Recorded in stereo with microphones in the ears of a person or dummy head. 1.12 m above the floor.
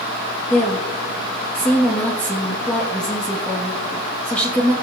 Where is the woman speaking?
10° left (ahead or behind), 1.4 m.